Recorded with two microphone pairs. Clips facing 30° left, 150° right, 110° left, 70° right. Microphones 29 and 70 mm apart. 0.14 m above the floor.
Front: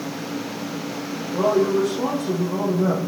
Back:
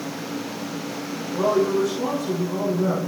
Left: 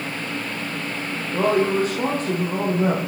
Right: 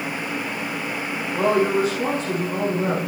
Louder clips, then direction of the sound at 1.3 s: Front 1 dB, even; 65° left.